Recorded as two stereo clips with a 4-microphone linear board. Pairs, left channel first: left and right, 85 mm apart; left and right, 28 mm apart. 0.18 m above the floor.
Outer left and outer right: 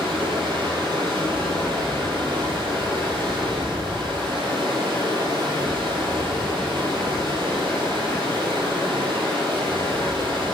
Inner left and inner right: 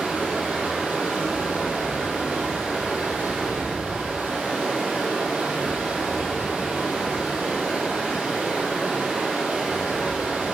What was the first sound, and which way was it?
Running water, 70° right (ahead or behind).